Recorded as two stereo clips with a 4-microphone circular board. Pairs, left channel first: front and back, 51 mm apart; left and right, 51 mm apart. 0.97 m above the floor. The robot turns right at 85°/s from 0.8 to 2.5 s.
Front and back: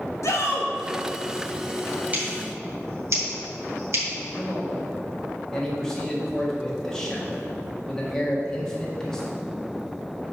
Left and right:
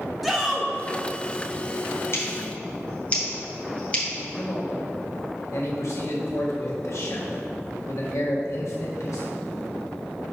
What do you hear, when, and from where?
0.2 s a shout: straight ahead, 1.5 m
2.1 s scissors: 120° left, 2 m; by 4.0 s 155° left, 2 m
4.1 s a man speaking: 80° left, 1.6 m